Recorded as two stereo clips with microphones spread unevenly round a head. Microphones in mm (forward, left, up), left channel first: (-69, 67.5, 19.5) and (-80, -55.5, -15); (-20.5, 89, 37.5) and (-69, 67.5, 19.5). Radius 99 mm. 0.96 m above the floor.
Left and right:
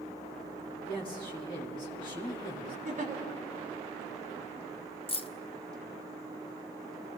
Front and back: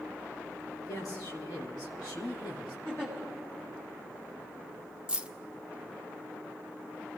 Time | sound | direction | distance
0.8 | a woman speaking | 15° left | 2.5 m
2.9 | a giggle | 55° right | 2.5 m
5.1 | keys jangling | 135° left | 0.9 m